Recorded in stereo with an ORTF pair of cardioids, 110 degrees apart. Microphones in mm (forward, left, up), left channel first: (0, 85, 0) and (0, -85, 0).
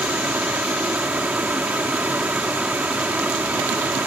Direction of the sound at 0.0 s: 10° right.